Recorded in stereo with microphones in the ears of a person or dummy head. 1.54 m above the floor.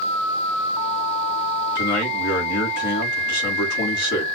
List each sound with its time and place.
1.8 s a man speaking: 55° left (ahead or behind), 2.5 m